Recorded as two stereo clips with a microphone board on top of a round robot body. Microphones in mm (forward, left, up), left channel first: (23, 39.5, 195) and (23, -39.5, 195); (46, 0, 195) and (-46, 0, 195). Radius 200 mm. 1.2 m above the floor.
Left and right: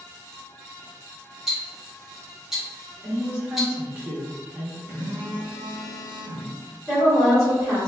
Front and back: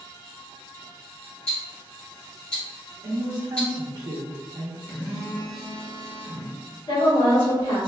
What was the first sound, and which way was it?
Ticking, 5° right.